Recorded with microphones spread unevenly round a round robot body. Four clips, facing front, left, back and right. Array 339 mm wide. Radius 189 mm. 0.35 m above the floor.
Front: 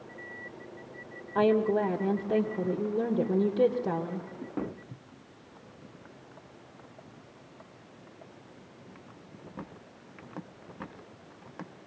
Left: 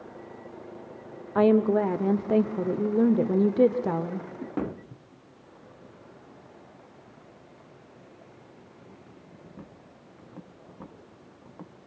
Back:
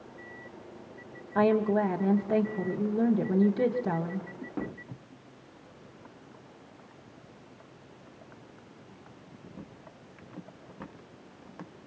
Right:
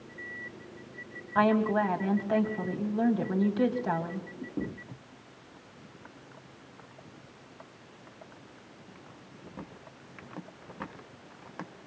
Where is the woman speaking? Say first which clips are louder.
Left 4 dB, even; 80° left, 1.8 m.